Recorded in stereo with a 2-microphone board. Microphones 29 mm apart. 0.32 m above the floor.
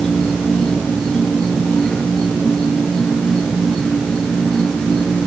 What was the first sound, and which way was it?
An insect, 25° left (ahead or behind).